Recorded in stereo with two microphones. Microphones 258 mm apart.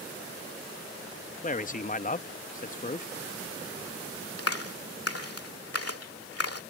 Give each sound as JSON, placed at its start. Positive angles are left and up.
{"t": 1.4, "sound": "a man speaking", "side_deg": 30}
{"t": 4.4, "sound": "a clap", "side_deg": 65}